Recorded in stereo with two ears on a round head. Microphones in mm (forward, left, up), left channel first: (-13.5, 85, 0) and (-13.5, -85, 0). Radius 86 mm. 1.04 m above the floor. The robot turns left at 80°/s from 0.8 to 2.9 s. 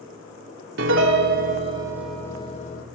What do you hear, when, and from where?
0.8 s a piano: 75° right, 0.8 m; by 2.8 s 120° left, 0.8 m